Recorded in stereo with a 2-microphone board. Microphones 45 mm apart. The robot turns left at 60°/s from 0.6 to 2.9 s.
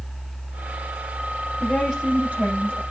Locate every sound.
1.6 s a woman speaking: 15° left, 6.5 m; by 2.8 s 60° right, 6.5 m